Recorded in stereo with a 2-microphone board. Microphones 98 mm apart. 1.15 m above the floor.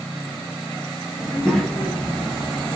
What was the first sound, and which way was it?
A child speaking, 10° left (ahead or behind).